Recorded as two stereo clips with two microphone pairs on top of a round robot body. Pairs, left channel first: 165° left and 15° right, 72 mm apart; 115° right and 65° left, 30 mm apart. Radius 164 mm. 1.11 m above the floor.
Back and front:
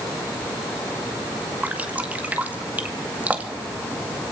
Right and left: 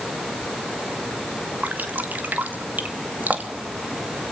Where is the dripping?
50° left, 2 m.